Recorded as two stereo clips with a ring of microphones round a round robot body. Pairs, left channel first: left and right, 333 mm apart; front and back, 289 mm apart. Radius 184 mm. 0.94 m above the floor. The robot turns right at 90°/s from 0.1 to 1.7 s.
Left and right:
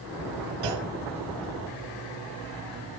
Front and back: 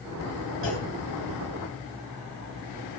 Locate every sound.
0.6 s a clunk: 55° right, 1.9 m; by 0.9 s 35° right, 1.9 m